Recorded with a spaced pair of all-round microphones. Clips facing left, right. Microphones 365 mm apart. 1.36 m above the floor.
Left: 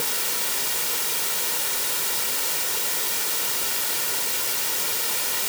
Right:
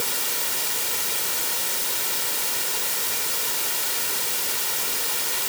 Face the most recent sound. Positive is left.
No sound to turn to.